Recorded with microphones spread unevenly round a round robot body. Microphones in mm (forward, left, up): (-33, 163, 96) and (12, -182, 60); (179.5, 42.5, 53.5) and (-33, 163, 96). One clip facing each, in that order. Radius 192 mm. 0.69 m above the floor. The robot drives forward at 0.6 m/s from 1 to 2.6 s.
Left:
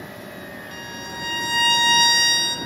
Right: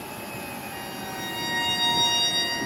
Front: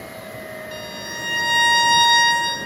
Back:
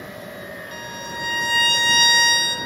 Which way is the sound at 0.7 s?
45° left.